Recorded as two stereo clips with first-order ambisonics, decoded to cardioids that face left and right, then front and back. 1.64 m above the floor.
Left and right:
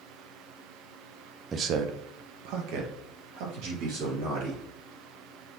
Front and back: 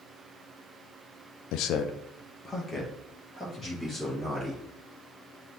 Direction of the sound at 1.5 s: 20° right.